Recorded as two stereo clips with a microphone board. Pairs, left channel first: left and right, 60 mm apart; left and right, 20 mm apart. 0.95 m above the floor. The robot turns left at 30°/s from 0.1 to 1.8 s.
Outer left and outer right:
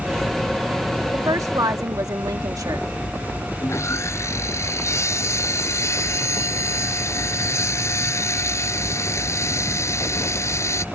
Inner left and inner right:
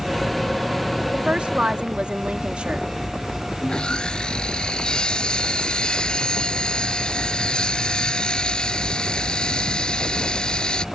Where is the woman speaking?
60° right (ahead or behind); by 2.9 s 75° right (ahead or behind).